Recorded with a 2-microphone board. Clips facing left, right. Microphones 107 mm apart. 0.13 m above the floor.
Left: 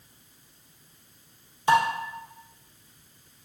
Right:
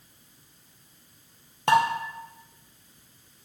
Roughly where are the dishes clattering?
Right.